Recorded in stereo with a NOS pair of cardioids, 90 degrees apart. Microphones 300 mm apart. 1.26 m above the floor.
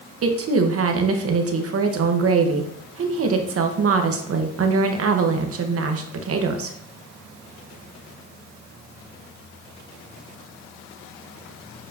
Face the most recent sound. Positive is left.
turn(degrees=-50)